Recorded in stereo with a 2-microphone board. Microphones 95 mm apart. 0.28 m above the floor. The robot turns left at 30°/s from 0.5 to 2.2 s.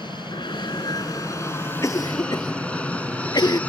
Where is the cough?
35° left (ahead or behind); by 3.6 s 45° left (ahead or behind).